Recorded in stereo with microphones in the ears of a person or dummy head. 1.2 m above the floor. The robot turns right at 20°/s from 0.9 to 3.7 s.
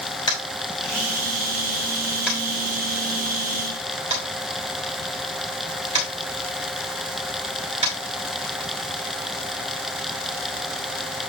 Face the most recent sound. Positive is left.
turn(degrees=-35)  # may be behind; listen again after turning